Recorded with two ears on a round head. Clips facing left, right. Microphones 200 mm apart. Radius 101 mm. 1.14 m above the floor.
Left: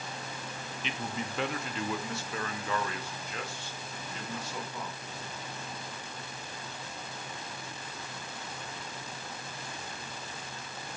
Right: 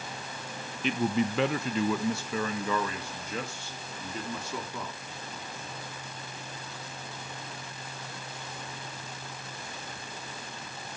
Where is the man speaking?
40° right (ahead or behind), 0.5 m; by 5.0 s 75° right (ahead or behind), 3 m.